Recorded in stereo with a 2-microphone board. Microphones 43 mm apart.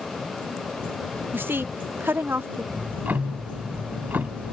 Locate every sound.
1.3 s a woman speaking: 50° right (ahead or behind)
2.7 s ticking: 45° right (ahead or behind)